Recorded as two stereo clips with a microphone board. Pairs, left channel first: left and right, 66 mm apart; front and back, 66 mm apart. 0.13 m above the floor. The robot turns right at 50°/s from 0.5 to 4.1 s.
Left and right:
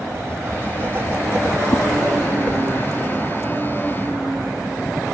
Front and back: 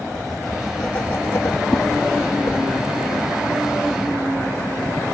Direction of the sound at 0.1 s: 85° right.